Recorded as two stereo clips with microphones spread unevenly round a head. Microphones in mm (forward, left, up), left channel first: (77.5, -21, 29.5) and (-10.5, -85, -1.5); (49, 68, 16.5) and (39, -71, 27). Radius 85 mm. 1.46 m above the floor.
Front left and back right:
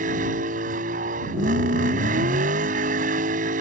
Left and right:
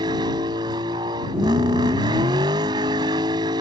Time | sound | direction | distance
0.0 | a vehicle | 160° right | ?